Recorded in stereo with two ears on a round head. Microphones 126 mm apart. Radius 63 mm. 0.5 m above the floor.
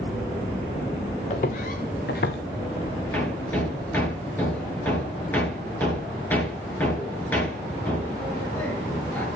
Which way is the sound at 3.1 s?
15° left (ahead or behind).